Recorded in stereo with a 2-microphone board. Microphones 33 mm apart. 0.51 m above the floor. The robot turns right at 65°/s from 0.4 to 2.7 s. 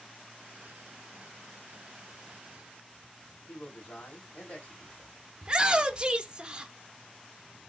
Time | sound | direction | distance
3.5 | a man speaking | 70° left (ahead or behind) | 3 m
5.4 | a shout | 30° right (ahead or behind) | 1.0 m